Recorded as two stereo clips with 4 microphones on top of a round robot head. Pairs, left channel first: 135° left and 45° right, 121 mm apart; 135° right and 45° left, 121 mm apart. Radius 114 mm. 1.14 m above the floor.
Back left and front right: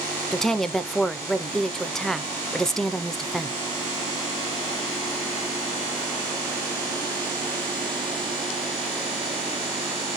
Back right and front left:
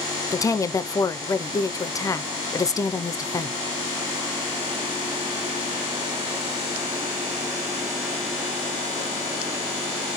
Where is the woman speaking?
140° right, 0.7 m.